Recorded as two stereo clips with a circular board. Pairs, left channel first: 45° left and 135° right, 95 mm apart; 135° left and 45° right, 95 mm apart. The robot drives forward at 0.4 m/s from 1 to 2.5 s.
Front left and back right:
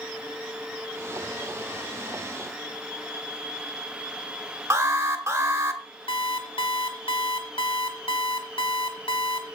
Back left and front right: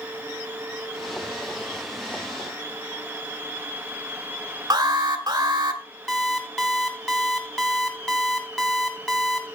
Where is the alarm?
85° right, 1.5 m.